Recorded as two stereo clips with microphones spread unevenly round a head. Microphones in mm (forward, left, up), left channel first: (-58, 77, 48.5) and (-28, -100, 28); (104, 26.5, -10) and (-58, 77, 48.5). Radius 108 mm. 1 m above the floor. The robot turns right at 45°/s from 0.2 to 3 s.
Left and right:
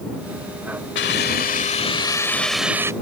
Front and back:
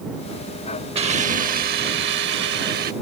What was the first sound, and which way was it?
A hiss, 115° left.